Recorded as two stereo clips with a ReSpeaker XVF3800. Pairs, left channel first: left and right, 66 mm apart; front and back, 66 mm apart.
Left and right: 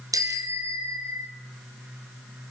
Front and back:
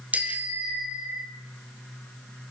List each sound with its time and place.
0.1 s a bicycle bell: 115° right, 2 m; by 1.3 s 105° right, 1.8 m